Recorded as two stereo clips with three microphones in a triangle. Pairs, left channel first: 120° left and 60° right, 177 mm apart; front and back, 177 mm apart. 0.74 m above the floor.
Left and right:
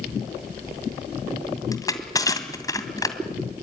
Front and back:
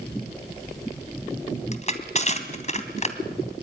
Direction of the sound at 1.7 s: 50° left.